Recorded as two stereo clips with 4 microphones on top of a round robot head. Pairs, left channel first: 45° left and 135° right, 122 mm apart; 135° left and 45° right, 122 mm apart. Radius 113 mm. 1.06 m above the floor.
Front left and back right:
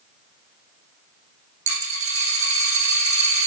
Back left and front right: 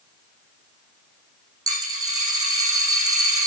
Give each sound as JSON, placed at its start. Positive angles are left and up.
{"t": 1.7, "sound": "a dropped coin", "azimuth_deg": -105, "distance_m": 4.0}